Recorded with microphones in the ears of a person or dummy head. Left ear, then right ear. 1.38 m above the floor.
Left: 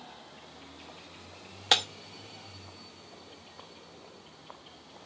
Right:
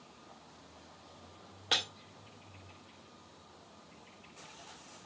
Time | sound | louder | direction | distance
1.7 | breaking glass | left 6 dB | 35° left (ahead or behind) | 0.9 m